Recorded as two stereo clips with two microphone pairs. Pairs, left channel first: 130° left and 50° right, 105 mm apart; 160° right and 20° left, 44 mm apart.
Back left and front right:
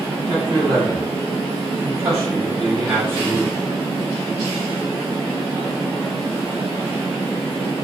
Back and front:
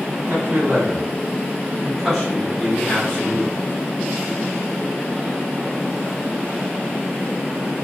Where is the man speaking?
15° right, 1.4 m; by 3.5 s 115° right, 1.4 m.